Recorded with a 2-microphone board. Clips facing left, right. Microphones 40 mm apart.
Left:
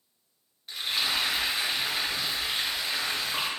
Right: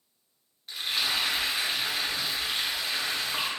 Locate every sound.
0.7 s frying: 5° left (ahead or behind), 1.1 m